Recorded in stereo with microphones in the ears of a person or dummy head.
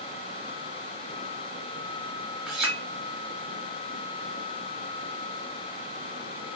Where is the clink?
5° right (ahead or behind), 1.0 m.